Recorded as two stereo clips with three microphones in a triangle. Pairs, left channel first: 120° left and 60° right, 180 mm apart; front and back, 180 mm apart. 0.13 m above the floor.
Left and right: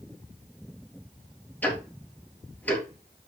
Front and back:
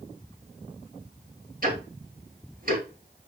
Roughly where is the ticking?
Behind.